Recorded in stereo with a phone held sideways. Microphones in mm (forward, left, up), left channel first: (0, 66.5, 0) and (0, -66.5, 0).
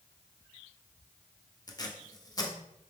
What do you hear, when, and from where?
1.7 s tape being pulled: 30° left (ahead or behind), 0.6 m